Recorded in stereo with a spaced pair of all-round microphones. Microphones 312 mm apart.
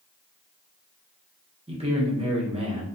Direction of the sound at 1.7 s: 20° right (ahead or behind).